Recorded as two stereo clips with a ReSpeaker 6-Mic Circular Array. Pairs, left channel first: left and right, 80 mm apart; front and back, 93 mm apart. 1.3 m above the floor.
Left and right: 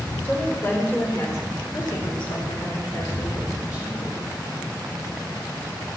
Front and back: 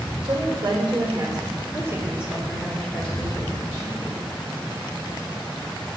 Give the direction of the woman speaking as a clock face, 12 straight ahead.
7 o'clock.